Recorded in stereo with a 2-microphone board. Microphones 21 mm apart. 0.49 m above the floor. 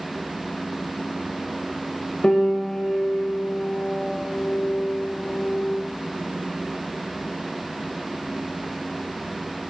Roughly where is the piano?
Left.